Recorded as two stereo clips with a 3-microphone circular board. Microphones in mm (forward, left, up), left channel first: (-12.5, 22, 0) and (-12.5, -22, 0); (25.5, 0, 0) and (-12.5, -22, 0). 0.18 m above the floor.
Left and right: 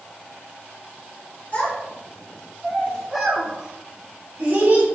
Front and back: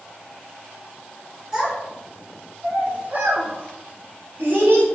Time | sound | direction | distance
1.5 | a child speaking | 140° left | 1.4 m